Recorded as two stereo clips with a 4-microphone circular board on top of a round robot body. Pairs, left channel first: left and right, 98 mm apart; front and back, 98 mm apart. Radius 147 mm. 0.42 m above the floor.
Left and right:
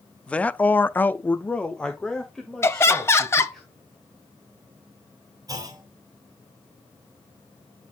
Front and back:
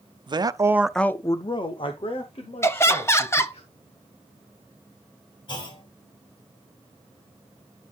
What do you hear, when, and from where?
0.3 s a man speaking: 165° left, 1.1 m; by 3.6 s 5° left, 3.5 m
2.6 s laughter: 45° left, 1.7 m
5.5 s a clunk: 40° right, 4.5 m